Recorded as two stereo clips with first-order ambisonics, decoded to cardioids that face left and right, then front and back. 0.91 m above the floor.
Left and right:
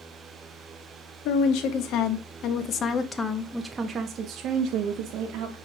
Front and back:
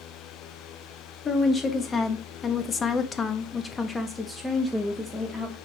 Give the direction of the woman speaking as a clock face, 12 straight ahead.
10 o'clock.